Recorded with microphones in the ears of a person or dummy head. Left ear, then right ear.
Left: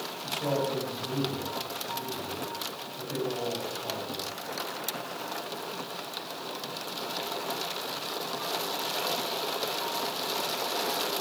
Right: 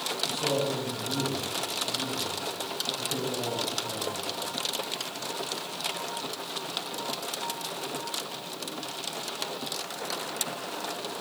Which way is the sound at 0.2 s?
55° left (ahead or behind).